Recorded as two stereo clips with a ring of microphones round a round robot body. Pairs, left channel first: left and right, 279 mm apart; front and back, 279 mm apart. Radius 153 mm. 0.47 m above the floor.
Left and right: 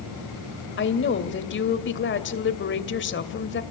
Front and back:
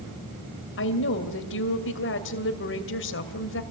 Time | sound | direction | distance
0.8 | a woman speaking | 45° left | 2.5 m